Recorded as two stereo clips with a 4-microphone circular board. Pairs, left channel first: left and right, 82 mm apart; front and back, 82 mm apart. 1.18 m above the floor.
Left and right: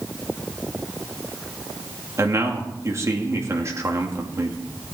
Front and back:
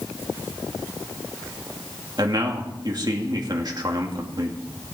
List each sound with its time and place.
2.2 s a man speaking: 145° right, 2.5 m